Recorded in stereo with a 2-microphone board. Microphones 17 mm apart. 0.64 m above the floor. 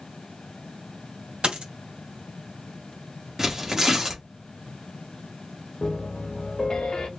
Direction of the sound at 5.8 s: 60° left (ahead or behind).